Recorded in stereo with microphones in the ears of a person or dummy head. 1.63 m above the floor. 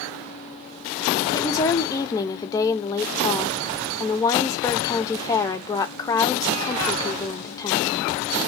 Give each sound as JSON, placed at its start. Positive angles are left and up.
{"t": 1.3, "sound": "a woman speaking", "side_deg": 20, "distance_m": 0.6}